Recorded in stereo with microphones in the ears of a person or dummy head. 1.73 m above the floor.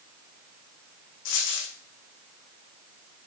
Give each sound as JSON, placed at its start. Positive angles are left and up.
{"t": 1.2, "sound": "a dropped coin", "side_deg": 60, "distance_m": 5.5}